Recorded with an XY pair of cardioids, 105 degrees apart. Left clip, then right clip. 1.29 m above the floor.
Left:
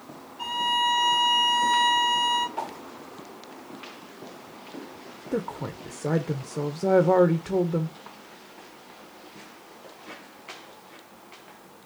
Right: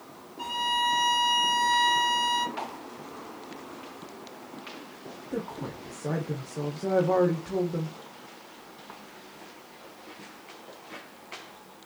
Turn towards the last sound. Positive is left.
turn(degrees=40)